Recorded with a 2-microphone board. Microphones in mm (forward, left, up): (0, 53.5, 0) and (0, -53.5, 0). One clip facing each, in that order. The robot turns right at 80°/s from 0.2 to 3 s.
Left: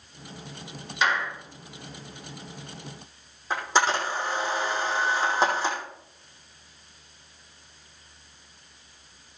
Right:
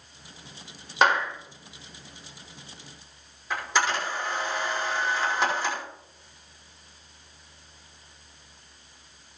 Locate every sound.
1.0 s a clap: 55° right (ahead or behind), 1.9 m; by 1.3 s 30° right (ahead or behind), 1.9 m
3.5 s a camera shutter: 30° left (ahead or behind), 5.5 m